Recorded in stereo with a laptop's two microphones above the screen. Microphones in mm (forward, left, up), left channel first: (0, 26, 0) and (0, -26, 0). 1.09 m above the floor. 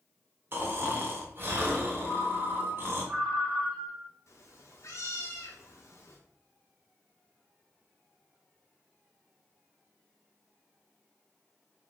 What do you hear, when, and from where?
0.5 s snoring: 40° right (ahead or behind), 0.9 m
2.0 s a ringtone: 10° right (ahead or behind), 2 m
4.3 s a cat meowing: 65° left (ahead or behind), 0.8 m